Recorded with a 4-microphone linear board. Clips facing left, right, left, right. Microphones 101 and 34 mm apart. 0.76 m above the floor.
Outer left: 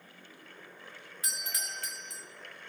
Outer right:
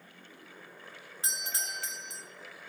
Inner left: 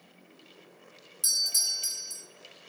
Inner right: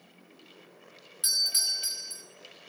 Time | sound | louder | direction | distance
1.2 | a doorbell | outer right 2 dB, inner right 1 dB | 25° right (ahead or behind) | 2 m